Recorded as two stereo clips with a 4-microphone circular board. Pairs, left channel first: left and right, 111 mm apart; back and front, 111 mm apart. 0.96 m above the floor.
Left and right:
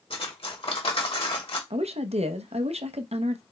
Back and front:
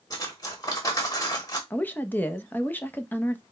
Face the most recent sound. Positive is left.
turn(degrees=-105)